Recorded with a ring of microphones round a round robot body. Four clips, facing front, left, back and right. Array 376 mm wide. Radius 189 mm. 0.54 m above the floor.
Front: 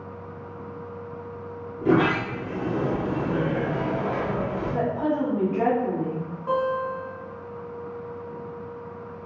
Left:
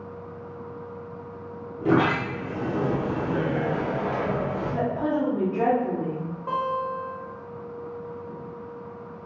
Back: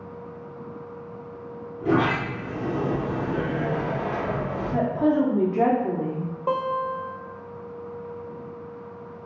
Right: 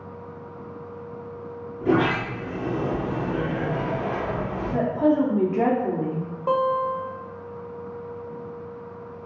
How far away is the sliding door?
About 1.4 m.